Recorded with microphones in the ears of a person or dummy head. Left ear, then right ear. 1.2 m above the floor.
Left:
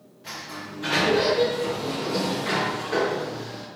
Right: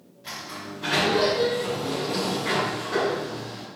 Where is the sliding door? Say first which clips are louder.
Even; 5° left (ahead or behind), 2 m.